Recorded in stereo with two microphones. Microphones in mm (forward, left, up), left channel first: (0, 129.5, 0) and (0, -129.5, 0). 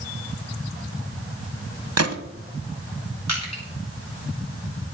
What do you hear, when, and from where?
2.0 s a gunshot: 70° right (ahead or behind), 1.0 m
3.3 s crushing: 80° left, 7.5 m